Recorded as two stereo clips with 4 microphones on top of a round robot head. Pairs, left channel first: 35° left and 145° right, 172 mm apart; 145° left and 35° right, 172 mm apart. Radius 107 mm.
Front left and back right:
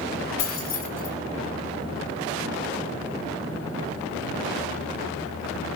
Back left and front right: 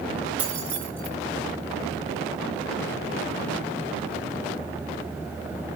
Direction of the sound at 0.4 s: 45° left.